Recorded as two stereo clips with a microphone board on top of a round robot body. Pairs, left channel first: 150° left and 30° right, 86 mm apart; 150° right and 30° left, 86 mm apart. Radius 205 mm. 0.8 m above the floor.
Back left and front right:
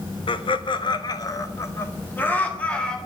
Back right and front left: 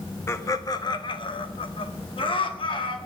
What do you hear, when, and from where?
0.3 s laughter: 155° left, 1.7 m; by 3.0 s 130° right, 3 m